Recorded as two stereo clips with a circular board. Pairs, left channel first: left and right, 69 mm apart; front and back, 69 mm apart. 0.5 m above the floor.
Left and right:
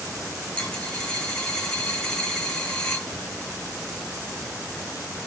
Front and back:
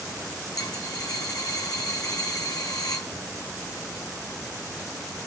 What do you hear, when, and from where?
0.6 s a dropped coin: 10° left, 1.4 m